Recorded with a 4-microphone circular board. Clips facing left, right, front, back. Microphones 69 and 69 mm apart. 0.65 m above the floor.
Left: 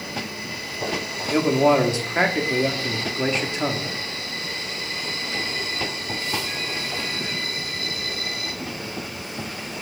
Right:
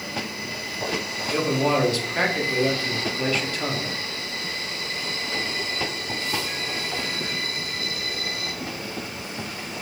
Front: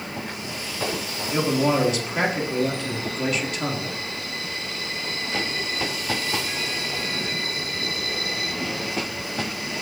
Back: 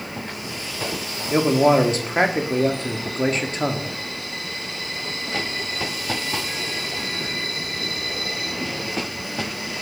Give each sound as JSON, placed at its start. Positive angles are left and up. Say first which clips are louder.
{"t": 1.3, "sound": "a man speaking", "louder": "left 5 dB, back 5 dB", "azimuth_deg": 145, "distance_m": 0.6}